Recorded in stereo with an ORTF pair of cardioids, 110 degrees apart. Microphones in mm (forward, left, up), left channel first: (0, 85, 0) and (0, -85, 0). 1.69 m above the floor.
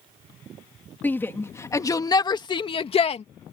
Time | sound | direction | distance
1.0 | a shout | 10° left | ?